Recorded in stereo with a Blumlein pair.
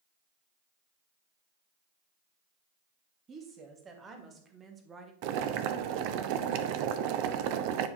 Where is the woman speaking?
20° right, 2.5 m; by 5.1 s 15° right, 1.5 m.